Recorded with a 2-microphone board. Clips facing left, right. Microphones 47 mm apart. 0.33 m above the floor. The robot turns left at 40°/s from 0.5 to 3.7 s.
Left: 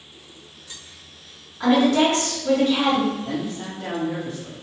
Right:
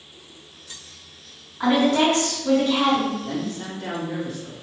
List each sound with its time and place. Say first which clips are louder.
1.6 s a woman speaking: left 1 dB; 165° right, 2.0 m; by 3.1 s 135° left, 2.0 m
3.2 s a man speaking: even; 40° left (ahead or behind), 1.4 m; by 4.6 s 25° left (ahead or behind), 1.4 m